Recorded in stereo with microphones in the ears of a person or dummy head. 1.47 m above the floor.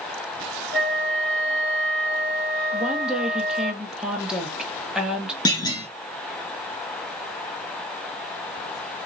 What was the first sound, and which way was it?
A flute, 5° left (ahead or behind).